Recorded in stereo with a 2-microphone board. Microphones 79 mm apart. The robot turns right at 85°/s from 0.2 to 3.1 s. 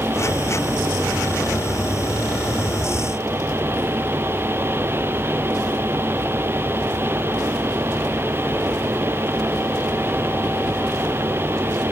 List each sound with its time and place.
Only background noise.